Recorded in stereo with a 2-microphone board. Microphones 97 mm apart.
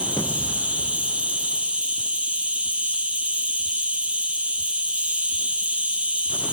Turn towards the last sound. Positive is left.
turn(degrees=-10)  # may be behind; listen again after turning